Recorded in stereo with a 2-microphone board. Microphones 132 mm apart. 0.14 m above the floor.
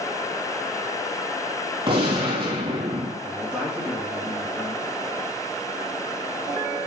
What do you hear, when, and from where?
1.9 s a gunshot: 40° right (ahead or behind), 3 m
3.2 s a man speaking: 10° right (ahead or behind), 2 m